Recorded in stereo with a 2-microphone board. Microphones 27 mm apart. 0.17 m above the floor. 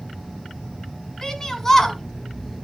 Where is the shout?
20° left (ahead or behind), 1.9 m; by 2.6 s 5° left (ahead or behind), 1.5 m.